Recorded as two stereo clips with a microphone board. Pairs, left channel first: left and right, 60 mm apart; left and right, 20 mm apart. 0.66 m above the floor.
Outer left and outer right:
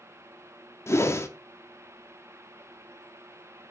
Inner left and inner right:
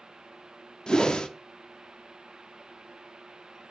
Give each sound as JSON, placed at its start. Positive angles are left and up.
{"t": 0.9, "sound": "a whoosh", "side_deg": 50, "distance_m": 0.8}